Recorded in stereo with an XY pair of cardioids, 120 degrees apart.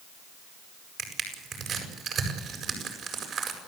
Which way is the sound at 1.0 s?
55° right.